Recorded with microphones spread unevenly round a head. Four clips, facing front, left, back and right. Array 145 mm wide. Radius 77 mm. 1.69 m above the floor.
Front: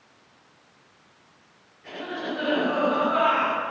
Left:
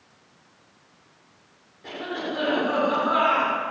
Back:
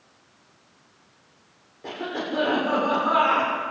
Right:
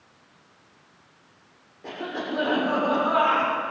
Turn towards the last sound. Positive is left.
turn(degrees=-160)